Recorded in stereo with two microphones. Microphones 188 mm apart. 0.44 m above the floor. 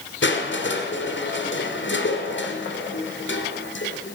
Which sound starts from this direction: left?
Crushing, at 0.2 s.